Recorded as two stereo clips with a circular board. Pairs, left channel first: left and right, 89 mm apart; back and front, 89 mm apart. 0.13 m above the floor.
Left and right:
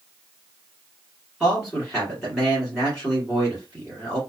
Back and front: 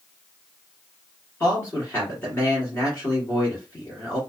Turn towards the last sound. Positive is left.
turn(degrees=175)